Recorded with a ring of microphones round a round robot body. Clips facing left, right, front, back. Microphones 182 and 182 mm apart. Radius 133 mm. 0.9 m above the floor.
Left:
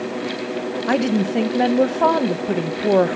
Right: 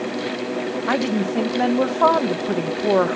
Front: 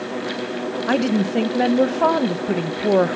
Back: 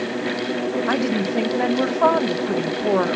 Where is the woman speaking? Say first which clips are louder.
Left 4 dB, front 6 dB; 35° left, 1.1 m.